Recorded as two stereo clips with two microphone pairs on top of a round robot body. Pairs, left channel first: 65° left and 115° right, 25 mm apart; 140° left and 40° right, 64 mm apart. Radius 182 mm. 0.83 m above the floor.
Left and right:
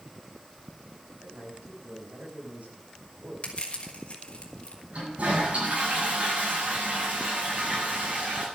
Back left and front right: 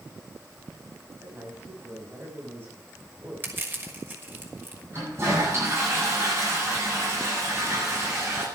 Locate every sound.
1.2 s a man speaking: 100° right, 6 m
3.4 s crushing: 20° left, 4 m
4.9 s a toilet flushing: 90° right, 9 m